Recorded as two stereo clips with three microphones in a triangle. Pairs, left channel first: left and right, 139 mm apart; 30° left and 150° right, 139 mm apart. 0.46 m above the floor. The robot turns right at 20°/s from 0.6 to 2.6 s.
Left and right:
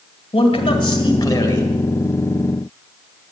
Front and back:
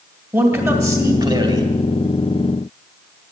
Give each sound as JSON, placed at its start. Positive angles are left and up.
{"t": 0.3, "sound": "a man speaking", "azimuth_deg": 140, "distance_m": 2.0}